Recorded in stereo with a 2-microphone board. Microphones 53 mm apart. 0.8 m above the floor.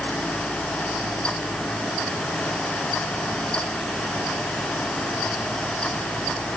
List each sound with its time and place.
Only background noise.